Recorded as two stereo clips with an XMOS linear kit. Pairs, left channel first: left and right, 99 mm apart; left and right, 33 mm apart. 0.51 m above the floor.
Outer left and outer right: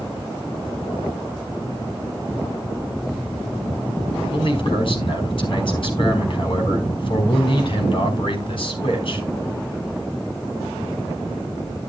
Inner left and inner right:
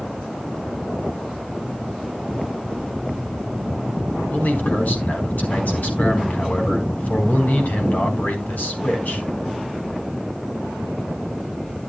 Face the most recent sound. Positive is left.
turn(degrees=60)  # may be behind; listen again after turning